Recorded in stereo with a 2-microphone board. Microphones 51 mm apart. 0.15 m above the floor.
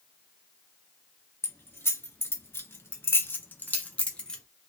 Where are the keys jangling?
45° left (ahead or behind), 1.9 m; by 4.4 s 15° left (ahead or behind), 1.3 m.